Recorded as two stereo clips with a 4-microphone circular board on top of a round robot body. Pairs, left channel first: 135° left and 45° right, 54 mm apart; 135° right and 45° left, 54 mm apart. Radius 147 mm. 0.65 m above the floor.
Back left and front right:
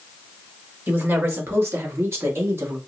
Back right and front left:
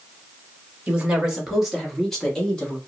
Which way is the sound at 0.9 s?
20° right.